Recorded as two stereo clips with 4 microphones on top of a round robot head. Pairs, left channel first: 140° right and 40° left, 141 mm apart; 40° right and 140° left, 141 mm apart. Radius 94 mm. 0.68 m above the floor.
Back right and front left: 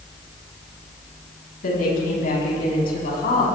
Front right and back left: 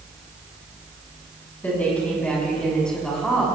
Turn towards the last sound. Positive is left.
turn(degrees=-130)